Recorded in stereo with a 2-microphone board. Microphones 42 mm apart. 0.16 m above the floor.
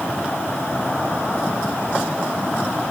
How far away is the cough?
I don't hear a cough.